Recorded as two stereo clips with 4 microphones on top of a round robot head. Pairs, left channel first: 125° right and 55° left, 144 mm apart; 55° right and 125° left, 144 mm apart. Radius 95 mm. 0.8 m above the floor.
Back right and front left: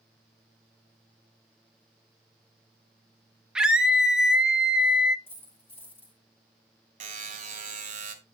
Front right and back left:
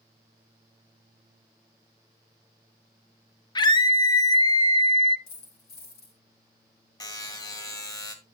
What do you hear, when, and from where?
3.5 s a scream: 30° right, 1.0 m
5.3 s a dropped coin: 50° right, 6 m
7.0 s a buzzer: 15° left, 1.5 m